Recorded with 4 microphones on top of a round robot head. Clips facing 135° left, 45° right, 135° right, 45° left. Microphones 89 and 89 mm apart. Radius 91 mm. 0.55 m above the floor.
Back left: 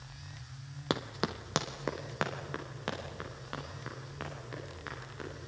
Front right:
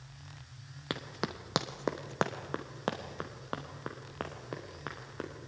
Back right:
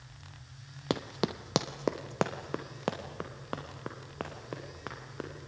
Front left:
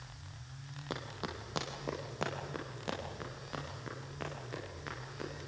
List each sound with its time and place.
0.9 s running footsteps: 160° right, 1.0 m; by 5.3 s 95° right, 5.5 m